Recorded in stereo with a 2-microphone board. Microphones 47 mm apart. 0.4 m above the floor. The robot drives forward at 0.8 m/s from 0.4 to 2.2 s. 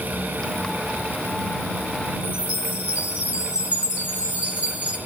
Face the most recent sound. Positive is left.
turn(degrees=-25)  # may be behind; listen again after turning